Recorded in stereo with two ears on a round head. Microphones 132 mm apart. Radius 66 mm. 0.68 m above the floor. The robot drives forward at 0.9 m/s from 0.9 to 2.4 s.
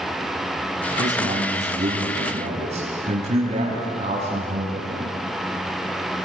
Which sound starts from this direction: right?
A man speaking, at 1.0 s.